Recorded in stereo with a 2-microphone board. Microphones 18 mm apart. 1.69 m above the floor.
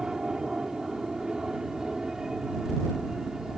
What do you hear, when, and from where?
0.0 s an aircraft: 40° right (ahead or behind)